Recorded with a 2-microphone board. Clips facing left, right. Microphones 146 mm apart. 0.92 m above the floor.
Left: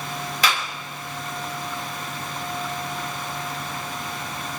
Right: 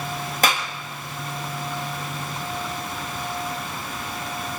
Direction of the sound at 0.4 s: 45° right (ahead or behind).